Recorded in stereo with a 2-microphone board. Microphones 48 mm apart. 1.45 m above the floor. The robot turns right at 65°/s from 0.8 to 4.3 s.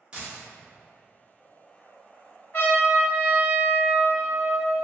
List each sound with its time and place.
0.1 s a dropped coin: 20° right (ahead or behind), 0.8 m
2.5 s a trumpet: 125° left, 1.3 m; by 4.8 s 120° right, 1.3 m